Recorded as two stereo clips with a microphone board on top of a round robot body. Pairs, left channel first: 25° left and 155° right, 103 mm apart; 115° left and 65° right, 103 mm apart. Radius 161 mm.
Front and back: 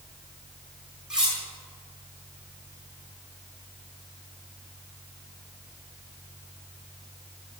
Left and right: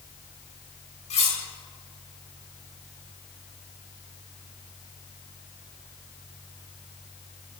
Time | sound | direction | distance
1.1 | cutlery clinking | 120° left | 1.3 m